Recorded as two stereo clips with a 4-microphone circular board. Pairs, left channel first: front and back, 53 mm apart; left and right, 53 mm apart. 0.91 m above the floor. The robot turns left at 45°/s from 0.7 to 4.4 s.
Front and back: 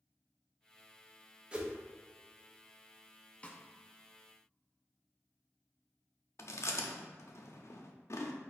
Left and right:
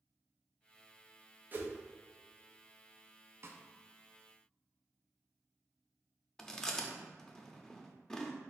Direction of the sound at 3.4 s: 60° right.